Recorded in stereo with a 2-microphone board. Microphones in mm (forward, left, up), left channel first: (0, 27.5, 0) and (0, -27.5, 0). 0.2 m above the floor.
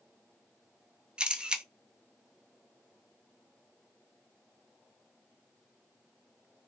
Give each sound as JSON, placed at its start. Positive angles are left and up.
{"t": 1.2, "sound": "a camera shutter", "side_deg": -20, "distance_m": 0.6}